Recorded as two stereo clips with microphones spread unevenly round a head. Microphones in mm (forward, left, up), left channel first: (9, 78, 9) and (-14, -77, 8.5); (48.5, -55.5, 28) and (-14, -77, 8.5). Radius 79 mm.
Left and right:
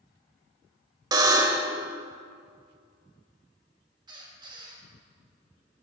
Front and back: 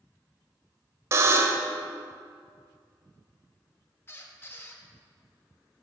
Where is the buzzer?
135° right, 1.0 m.